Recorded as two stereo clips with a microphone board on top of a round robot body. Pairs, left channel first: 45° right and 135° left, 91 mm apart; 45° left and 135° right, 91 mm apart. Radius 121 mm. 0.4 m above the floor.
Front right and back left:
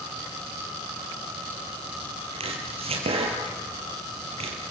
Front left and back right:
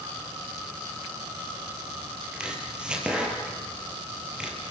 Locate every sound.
2.3 s chopping: 145° left, 4 m